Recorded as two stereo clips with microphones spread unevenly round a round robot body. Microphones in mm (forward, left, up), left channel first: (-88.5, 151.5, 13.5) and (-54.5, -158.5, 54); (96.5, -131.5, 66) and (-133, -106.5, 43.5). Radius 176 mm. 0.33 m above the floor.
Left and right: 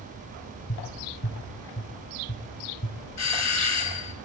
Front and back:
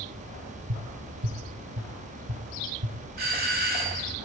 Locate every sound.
0.7 s tapping: 155° left, 3.5 m
3.2 s a doorbell: 125° left, 3 m